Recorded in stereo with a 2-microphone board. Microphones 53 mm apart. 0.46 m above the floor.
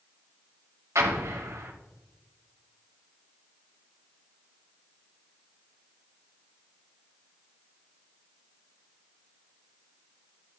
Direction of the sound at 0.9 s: 65° right (ahead or behind).